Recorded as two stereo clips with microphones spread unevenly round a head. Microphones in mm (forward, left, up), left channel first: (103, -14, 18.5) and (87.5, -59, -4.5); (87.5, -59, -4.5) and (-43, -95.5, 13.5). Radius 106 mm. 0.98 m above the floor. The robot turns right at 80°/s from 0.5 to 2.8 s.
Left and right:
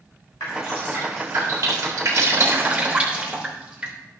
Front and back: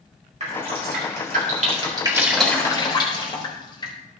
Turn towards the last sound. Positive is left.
turn(degrees=-45)